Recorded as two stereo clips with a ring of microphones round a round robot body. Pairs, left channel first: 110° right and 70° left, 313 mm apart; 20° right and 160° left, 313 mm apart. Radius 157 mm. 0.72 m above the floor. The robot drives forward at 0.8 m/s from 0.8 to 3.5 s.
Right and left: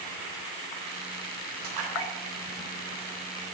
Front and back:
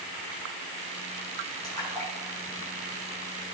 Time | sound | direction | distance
1.6 | a splash | 55° left | 3 m